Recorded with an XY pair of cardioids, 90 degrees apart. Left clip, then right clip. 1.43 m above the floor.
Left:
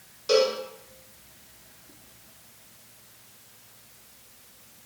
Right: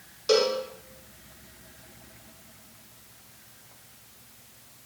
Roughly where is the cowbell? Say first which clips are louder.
Left 1 dB; ahead right.